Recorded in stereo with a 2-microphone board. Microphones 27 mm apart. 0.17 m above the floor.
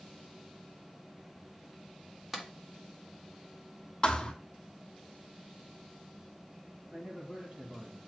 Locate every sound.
2.3 s a clap: 10° right (ahead or behind), 1.2 m
4.0 s a thud: 25° left (ahead or behind), 1.0 m
6.9 s a man speaking: 45° right (ahead or behind), 4.5 m